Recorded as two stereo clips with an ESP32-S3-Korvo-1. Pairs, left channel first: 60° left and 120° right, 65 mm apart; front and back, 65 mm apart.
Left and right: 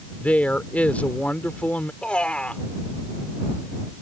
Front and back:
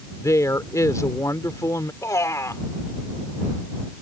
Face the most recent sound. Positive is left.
turn(degrees=-10)